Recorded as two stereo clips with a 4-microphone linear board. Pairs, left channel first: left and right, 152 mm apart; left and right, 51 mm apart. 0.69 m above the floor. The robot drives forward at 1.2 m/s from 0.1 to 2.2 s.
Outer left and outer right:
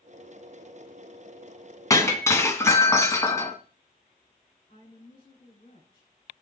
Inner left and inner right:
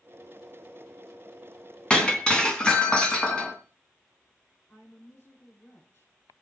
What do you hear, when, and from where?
1.9 s breaking glass: 20° left (ahead or behind), 2.5 m
4.7 s a woman speaking: 60° left (ahead or behind), 7.5 m